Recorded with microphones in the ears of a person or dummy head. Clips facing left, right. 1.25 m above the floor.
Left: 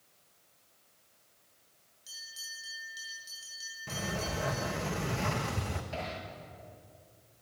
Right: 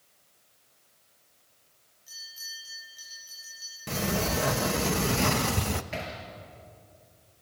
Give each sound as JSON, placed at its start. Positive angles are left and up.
{"t": 2.1, "sound": "a bell", "side_deg": 50, "distance_m": 9.5}
{"t": 3.9, "sound": "a sliding door", "side_deg": -55, "distance_m": 0.9}
{"t": 5.9, "sound": "hammering", "side_deg": -25, "distance_m": 5.5}